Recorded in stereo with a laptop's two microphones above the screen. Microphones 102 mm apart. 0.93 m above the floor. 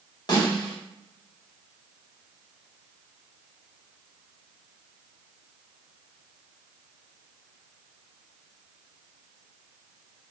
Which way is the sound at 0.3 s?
45° left (ahead or behind).